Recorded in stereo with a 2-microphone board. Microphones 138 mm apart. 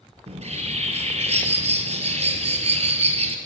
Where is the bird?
50° right (ahead or behind), 0.9 m.